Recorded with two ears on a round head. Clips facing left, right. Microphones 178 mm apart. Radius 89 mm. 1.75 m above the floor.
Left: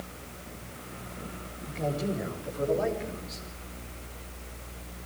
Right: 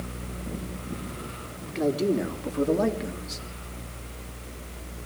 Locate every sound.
1.6 s a man speaking: 75° right (ahead or behind), 4 m; by 3.5 s 55° right (ahead or behind), 3 m